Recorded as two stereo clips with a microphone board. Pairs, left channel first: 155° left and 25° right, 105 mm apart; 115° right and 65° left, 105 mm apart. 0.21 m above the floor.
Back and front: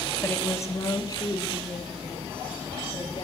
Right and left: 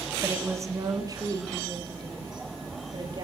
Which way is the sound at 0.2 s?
110° left.